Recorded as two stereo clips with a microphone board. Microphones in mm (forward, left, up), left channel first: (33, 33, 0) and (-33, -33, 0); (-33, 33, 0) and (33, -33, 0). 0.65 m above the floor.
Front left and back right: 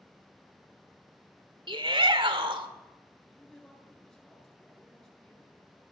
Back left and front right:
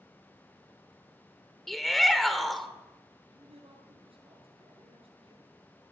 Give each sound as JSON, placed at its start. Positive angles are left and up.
{"t": 1.7, "sound": "a shout", "azimuth_deg": -135, "distance_m": 2.5}
{"t": 3.3, "sound": "a man speaking", "azimuth_deg": -40, "distance_m": 9.0}